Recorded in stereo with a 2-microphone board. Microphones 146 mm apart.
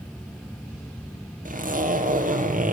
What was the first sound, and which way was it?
A zipper, 65° right (ahead or behind).